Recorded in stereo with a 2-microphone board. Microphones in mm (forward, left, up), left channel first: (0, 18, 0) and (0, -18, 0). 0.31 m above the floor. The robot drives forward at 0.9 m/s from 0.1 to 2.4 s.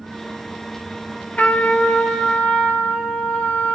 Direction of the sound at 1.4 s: 45° left (ahead or behind).